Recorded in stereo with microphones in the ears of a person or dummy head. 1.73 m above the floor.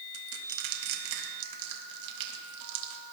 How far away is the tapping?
I don't hear tapping.